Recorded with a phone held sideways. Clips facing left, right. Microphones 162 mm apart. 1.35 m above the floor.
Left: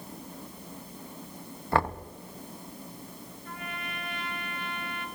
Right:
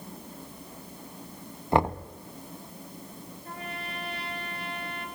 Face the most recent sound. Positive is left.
turn(degrees=-35)  # may be behind; listen again after turning